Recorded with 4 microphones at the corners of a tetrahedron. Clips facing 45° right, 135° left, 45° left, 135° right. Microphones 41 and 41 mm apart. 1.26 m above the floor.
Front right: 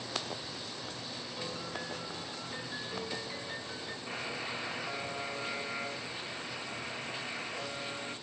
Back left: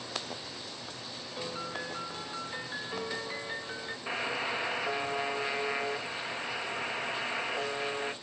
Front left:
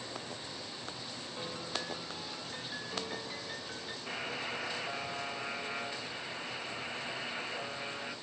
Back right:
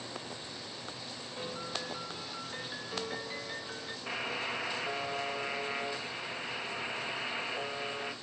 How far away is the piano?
About 1.0 m.